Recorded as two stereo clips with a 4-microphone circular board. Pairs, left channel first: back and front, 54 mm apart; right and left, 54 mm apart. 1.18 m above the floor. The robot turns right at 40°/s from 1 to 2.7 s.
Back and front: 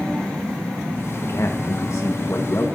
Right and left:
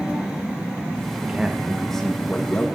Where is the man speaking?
160° left, 1.2 m; by 2.7 s 140° right, 1.2 m.